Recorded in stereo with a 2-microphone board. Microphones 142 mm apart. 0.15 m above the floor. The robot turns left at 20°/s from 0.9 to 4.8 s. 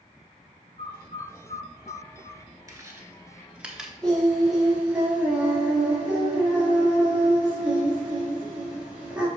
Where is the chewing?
25° right (ahead or behind), 1.2 m; by 3.9 s 5° right (ahead or behind), 1.2 m.